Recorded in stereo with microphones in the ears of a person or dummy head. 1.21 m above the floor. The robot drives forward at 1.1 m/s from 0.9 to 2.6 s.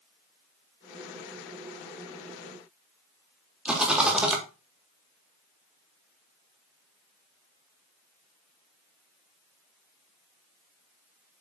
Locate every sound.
3.6 s a rattle: centre (ahead or behind), 1.8 m